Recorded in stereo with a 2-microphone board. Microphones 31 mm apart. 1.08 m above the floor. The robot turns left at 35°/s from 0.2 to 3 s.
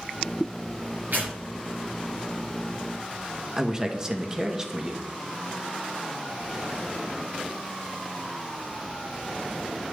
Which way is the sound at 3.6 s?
20° right (ahead or behind).